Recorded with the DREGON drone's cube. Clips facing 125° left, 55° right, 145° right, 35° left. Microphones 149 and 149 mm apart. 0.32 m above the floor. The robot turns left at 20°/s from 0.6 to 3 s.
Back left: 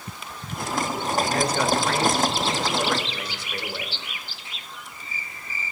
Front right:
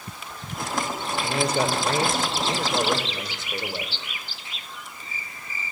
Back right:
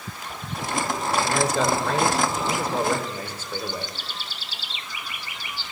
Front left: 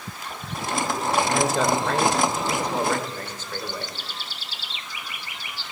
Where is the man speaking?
45° right, 1.0 m; by 3.9 s 80° right, 1.0 m.